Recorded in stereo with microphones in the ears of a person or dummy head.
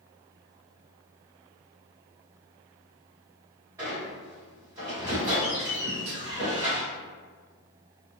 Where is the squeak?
20° right (ahead or behind), 1.6 m.